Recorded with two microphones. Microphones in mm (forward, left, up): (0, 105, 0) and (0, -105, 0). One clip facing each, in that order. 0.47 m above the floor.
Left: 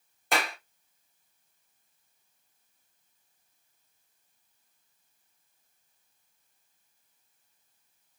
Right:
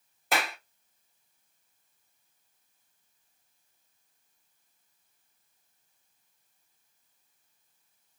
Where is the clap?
Centre (ahead or behind), 0.8 m.